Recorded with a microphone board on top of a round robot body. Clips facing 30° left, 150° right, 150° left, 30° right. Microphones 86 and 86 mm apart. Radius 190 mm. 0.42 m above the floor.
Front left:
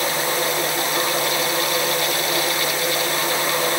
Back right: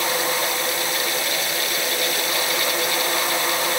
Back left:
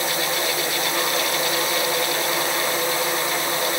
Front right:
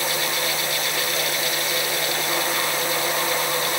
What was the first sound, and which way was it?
Only background noise.